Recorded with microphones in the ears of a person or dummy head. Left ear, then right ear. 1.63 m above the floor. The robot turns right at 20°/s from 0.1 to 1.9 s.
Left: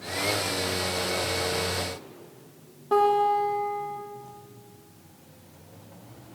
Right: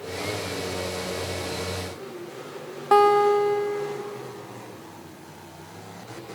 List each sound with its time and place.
2.9 s a guitar: 50° right (ahead or behind), 1.3 m